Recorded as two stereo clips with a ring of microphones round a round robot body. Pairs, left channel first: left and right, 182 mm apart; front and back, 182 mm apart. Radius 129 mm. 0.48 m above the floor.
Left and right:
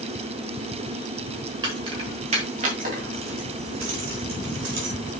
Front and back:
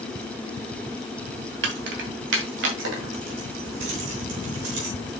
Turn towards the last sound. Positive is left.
turn(degrees=-140)